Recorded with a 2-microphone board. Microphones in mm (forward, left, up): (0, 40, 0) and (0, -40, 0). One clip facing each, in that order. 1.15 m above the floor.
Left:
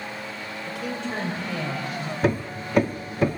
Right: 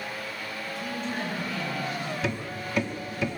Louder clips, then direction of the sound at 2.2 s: Left 6 dB; 40° left (ahead or behind).